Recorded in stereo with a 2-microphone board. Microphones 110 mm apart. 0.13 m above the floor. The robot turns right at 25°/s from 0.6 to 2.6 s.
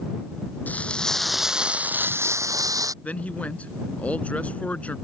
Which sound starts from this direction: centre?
A man speaking, at 3.0 s.